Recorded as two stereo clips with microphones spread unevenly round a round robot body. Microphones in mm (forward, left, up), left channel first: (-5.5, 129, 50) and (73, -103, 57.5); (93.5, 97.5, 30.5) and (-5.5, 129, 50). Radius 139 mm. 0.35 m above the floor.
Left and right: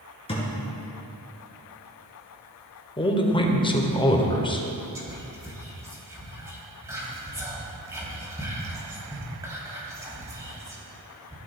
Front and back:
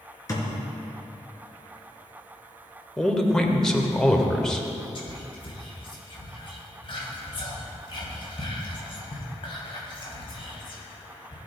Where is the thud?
40° left, 3.5 m.